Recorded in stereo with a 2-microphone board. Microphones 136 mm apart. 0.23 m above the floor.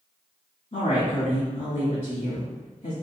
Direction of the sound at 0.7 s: 55° left (ahead or behind).